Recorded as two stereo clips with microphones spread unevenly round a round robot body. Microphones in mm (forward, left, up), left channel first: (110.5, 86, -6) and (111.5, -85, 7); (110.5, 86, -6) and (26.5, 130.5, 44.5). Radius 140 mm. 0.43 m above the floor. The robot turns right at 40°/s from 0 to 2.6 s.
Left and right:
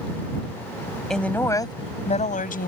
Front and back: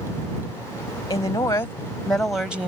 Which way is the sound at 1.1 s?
5° left.